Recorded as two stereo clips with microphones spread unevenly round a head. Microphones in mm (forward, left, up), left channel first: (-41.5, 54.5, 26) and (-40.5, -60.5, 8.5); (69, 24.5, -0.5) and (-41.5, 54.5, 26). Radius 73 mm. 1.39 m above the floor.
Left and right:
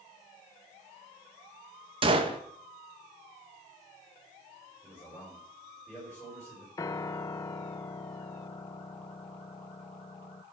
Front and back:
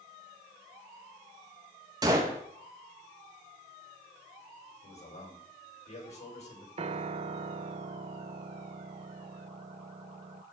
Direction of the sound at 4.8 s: 10° left.